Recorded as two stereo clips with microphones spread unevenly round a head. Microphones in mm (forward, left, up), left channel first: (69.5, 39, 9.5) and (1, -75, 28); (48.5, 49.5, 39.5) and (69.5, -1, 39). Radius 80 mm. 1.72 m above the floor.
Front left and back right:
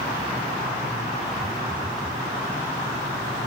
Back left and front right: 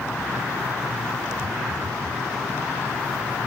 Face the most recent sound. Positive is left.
turn(degrees=-60)